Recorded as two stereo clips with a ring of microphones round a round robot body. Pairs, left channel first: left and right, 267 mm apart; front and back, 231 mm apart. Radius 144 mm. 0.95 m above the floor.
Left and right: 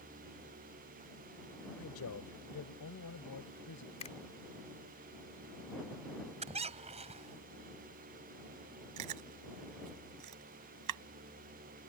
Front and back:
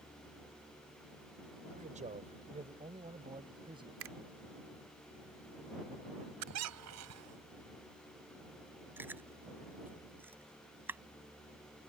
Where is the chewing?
100° right.